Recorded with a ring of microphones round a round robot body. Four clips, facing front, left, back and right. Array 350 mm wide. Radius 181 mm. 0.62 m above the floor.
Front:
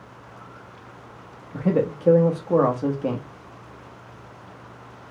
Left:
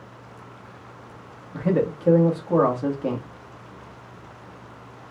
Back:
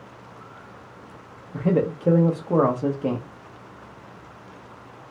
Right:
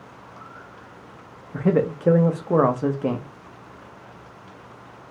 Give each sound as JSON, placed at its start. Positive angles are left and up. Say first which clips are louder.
{"t": 1.5, "sound": "a man speaking", "louder": "right 2 dB, even", "azimuth_deg": -90, "distance_m": 0.7}